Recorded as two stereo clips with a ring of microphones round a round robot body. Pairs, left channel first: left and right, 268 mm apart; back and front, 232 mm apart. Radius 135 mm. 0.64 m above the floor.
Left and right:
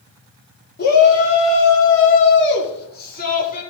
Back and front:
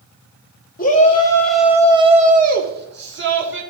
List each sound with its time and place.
0.8 s a shout: 135° left, 1.4 m; by 3.6 s 30° left, 3 m